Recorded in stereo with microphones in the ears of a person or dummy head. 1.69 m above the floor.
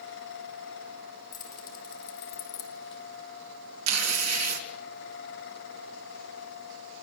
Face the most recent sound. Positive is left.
turn(degrees=-85)